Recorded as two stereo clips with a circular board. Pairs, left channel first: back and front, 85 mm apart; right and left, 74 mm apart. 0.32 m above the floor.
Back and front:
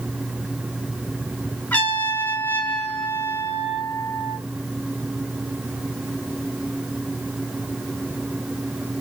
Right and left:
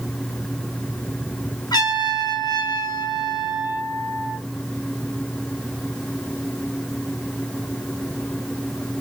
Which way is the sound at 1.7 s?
110° right.